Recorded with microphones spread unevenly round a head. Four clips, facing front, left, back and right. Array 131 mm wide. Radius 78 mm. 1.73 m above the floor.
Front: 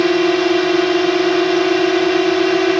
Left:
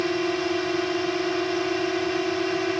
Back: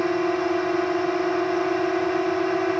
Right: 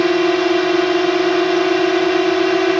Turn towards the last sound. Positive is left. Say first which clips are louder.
# right 10 dB, front 8 dB
turn(degrees=-25)